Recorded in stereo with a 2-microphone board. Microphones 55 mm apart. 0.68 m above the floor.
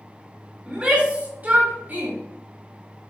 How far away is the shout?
About 2.5 m.